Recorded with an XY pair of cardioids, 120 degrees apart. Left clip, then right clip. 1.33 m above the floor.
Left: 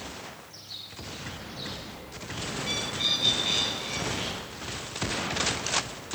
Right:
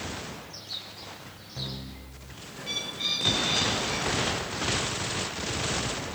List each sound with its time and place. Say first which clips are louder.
0.5 s a bird: right 3 dB; 25° right, 7 m
2.6 s a bird: left 1 dB; 15° left, 6 m